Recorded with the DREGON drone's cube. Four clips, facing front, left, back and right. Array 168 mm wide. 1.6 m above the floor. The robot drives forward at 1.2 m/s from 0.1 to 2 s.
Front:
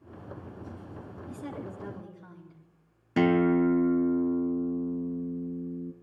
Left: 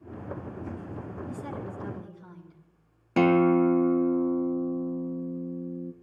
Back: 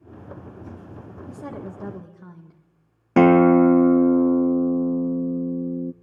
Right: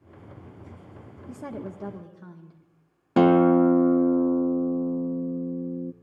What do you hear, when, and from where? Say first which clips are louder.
1.3 s a woman speaking: right 5 dB, back 4 dB; 125° right, 1.6 m; by 2.6 s 145° right, 2 m
3.2 s a guitar: right 3 dB, back 10 dB; 160° right, 0.5 m